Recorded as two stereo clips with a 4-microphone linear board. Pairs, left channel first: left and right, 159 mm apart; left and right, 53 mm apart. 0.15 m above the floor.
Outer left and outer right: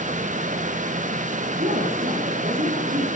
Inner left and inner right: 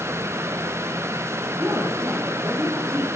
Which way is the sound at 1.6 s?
60° right (ahead or behind).